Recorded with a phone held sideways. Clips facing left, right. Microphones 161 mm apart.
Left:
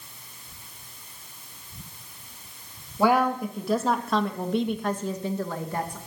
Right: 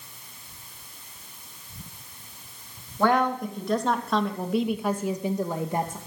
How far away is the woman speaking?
About 1.6 m.